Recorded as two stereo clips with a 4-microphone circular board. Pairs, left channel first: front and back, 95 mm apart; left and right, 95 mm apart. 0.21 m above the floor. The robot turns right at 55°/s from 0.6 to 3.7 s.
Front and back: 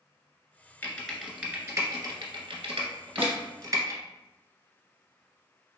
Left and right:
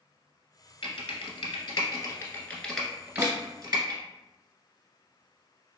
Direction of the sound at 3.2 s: 125° right.